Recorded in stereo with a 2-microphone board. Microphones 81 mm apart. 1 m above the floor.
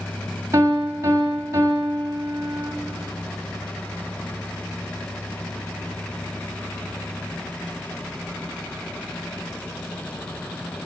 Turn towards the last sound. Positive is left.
turn(degrees=-40)  # may be behind; listen again after turning